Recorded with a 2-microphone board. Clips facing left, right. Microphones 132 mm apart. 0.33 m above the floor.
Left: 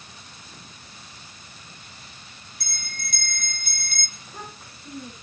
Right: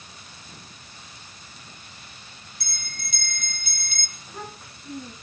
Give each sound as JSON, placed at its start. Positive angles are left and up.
{"t": 2.6, "sound": "a bell", "side_deg": 50, "distance_m": 2.0}
{"t": 4.2, "sound": "a child speaking", "side_deg": 0, "distance_m": 8.5}